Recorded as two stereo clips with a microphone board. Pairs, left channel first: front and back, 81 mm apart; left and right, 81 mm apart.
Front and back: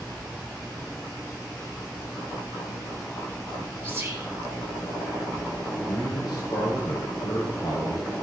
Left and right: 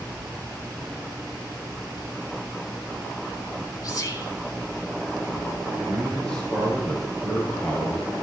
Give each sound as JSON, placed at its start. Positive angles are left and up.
{"t": 3.8, "sound": "whispering", "azimuth_deg": 120, "distance_m": 2.5}
{"t": 5.8, "sound": "a man speaking", "azimuth_deg": 15, "distance_m": 4.0}